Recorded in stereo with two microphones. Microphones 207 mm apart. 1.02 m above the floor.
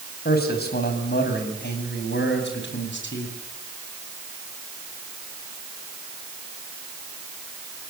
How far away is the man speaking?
About 6 m.